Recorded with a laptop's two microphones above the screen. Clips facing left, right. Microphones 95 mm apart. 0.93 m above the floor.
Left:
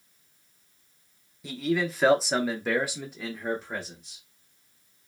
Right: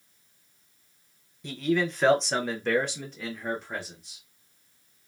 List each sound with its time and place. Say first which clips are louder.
1.4 s a man speaking: right 1 dB; 5° left (ahead or behind), 0.9 m